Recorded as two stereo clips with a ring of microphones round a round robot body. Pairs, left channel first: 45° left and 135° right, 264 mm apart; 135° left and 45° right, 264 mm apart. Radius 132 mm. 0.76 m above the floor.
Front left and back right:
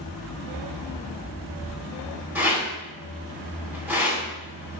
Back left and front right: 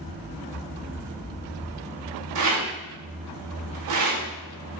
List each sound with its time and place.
2.4 s a rattle: 50° right, 3 m